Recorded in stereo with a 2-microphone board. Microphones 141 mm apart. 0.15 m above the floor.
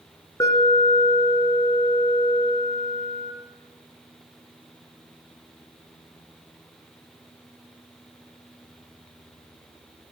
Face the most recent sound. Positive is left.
turn(degrees=25)  # may be behind; listen again after turning